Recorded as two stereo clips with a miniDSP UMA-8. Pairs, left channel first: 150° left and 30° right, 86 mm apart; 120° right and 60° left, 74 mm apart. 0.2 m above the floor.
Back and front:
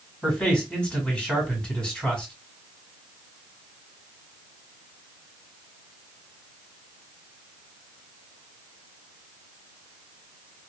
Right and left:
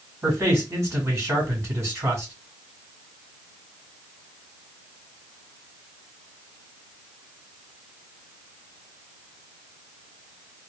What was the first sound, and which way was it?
A man speaking, 75° left.